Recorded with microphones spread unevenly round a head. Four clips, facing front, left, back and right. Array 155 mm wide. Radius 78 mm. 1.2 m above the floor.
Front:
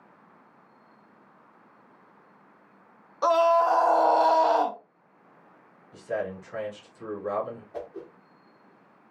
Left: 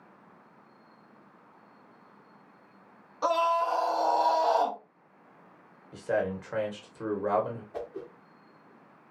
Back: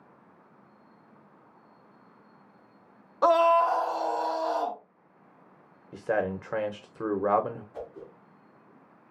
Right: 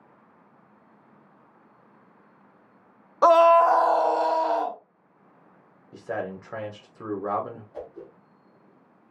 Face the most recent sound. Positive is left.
turn(degrees=35)